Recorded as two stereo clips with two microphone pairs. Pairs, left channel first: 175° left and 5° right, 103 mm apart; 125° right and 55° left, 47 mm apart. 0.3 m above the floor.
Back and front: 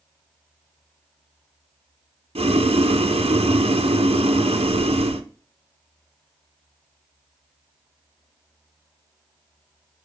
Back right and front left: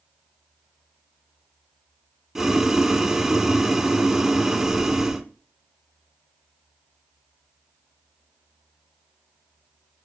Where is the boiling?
25° right, 0.7 m.